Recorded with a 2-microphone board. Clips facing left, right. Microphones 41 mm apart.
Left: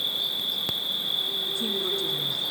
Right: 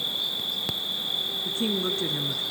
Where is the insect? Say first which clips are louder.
Left 1 dB; 10° left (ahead or behind), 1.7 m.